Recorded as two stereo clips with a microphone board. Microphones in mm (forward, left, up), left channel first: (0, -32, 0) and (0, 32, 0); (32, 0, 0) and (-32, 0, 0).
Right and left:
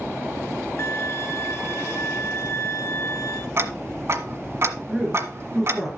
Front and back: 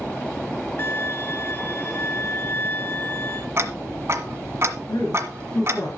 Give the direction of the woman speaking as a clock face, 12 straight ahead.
12 o'clock.